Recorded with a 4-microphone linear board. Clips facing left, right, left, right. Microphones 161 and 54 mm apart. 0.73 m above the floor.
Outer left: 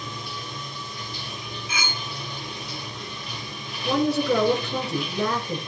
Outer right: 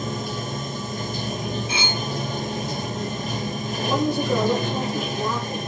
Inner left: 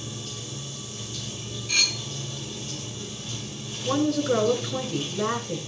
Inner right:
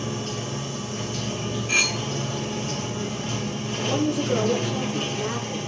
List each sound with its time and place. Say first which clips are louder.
0.0 s running water: outer right 8 dB, inner right 8 dB; 40° right (ahead or behind), 1.0 m
1.7 s cutlery clinking: outer right 6 dB, inner right 4 dB; 25° right (ahead or behind), 1.6 m
3.9 s a woman speaking: outer left 1 dB, inner left 1 dB; 60° left (ahead or behind), 9.5 m